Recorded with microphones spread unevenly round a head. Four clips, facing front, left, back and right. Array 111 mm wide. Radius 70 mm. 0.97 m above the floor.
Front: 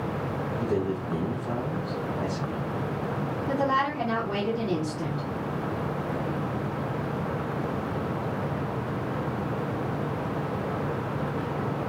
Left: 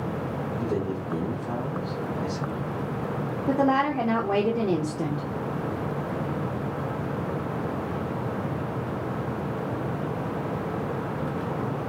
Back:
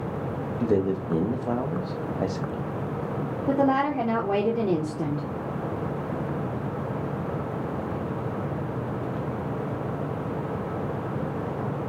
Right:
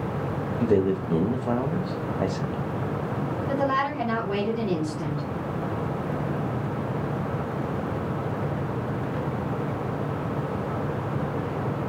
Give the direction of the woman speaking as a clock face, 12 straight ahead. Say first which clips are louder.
Left 3 dB, back 4 dB; 7 o'clock.